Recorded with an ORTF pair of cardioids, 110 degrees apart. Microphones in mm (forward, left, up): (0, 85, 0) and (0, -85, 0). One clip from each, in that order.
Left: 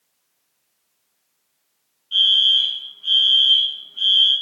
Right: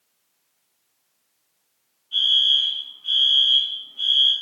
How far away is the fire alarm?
About 1.6 m.